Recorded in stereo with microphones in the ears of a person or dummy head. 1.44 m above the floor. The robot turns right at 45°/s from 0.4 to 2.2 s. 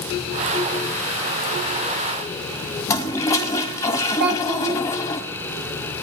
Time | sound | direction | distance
2.9 | a toilet flushing | 15° left (ahead or behind) | 1.4 m
4.2 | a child speaking | 55° right (ahead or behind) | 0.7 m